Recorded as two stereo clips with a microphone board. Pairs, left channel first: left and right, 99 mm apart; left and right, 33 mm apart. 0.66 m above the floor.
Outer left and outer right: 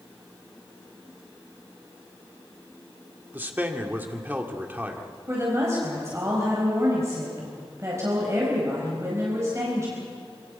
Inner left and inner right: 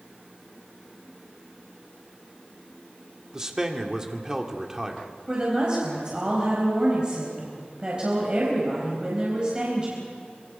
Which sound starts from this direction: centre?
A man speaking, at 3.3 s.